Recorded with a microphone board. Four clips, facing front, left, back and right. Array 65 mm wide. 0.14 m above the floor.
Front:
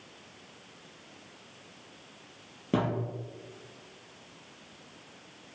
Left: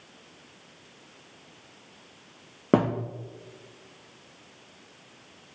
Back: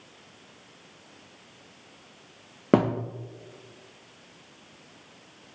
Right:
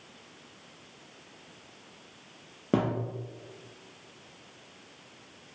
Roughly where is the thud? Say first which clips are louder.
Left 5 dB, back 7 dB; behind left.